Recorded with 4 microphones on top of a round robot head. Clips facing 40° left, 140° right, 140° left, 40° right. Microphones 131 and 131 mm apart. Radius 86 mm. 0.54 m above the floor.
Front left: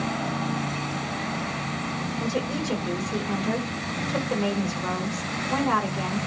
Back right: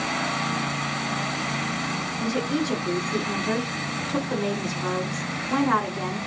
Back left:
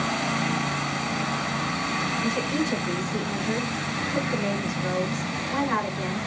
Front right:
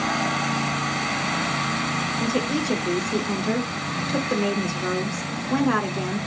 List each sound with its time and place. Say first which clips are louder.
2.2 s a woman speaking: back right 4 dB, front right 2 dB; 35° right, 7 m